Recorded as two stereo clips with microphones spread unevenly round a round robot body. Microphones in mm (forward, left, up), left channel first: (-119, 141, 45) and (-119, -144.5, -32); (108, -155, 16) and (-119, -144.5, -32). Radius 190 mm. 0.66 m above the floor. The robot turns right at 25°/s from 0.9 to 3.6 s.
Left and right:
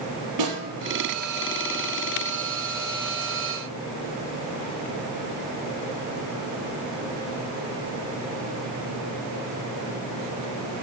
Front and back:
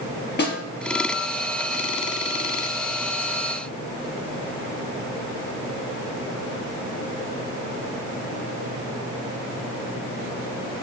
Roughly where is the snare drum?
Ahead right.